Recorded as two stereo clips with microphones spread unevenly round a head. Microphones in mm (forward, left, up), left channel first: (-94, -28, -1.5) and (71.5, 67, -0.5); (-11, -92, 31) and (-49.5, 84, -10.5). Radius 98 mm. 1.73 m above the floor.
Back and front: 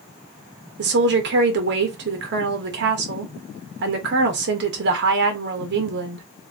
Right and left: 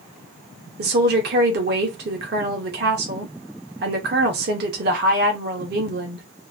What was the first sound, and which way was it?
A woman speaking, 55° left.